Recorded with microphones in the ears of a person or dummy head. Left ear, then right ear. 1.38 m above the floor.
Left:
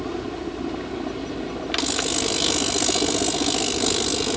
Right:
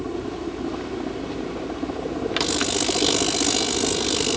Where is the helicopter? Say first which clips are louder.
Even; 10° left (ahead or behind).